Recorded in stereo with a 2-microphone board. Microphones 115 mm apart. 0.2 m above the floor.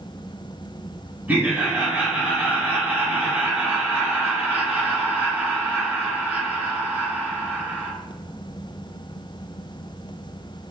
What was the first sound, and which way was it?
Laughter, 15° right (ahead or behind).